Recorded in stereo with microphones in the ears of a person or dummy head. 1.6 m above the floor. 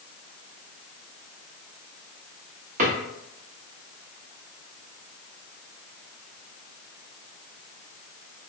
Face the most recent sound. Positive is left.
turn(degrees=-45)  # may be behind; listen again after turning